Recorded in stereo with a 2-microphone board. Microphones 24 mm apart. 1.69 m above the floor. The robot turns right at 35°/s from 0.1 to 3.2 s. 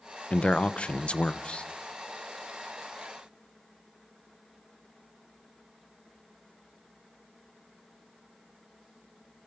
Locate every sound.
0.3 s a man speaking: 80° left, 0.9 m; by 1.7 s 125° left, 0.9 m